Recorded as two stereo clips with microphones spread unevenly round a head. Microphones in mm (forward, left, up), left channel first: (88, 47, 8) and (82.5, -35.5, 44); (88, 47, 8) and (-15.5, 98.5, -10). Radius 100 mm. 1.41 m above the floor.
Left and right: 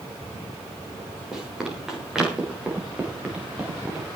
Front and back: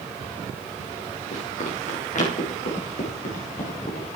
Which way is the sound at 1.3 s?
10° right.